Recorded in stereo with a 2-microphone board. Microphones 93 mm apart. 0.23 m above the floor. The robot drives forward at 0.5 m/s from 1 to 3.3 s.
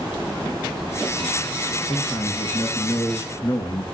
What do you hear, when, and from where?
1.9 s a man speaking: 35° left (ahead or behind), 4 m; by 3.9 s 45° left (ahead or behind), 3.5 m